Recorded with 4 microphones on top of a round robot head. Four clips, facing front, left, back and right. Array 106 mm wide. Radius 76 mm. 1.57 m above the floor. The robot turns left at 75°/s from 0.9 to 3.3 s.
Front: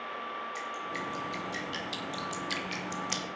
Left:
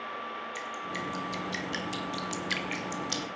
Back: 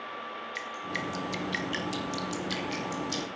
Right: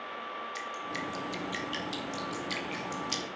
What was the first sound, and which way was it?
Dripping, 160° right.